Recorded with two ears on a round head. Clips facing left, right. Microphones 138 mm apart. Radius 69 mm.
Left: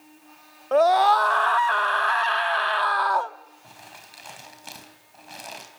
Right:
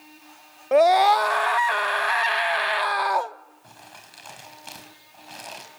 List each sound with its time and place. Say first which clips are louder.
0.7 s a scream: right 1 dB; 15° right (ahead or behind), 0.6 m
3.6 s crumpling: even; 5° left (ahead or behind), 4 m